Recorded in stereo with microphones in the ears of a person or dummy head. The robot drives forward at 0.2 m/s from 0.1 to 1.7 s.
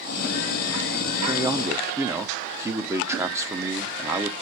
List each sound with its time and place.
1.3 s a man speaking: 20° right (ahead or behind), 0.6 m; by 4.3 s 15° right (ahead or behind), 0.7 m